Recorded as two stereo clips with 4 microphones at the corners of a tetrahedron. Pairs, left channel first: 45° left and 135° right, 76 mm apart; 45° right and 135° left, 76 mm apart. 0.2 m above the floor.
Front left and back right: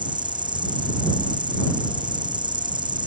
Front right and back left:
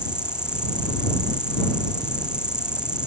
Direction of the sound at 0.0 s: 145° right.